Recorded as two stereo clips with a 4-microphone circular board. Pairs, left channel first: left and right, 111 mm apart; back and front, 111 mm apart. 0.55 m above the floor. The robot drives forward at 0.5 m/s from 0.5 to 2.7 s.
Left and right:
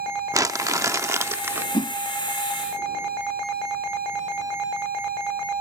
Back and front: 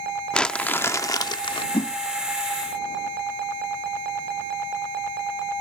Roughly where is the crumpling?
Right.